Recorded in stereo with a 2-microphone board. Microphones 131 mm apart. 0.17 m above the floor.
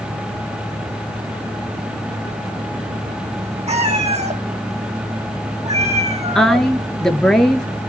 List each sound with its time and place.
3.7 s a cat meowing: 50° right (ahead or behind), 5 m
6.3 s a woman speaking: 5° left (ahead or behind), 3 m